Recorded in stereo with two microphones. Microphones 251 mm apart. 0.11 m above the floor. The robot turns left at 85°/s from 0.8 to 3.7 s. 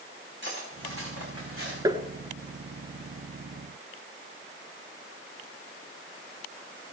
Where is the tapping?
15° right (ahead or behind), 1.0 m; by 2.0 s 20° right (ahead or behind), 1.0 m.